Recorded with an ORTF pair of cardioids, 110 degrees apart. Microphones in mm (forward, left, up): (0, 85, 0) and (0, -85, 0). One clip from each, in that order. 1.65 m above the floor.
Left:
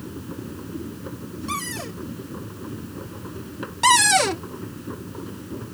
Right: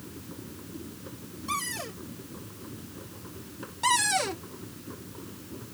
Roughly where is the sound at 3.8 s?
Ahead left.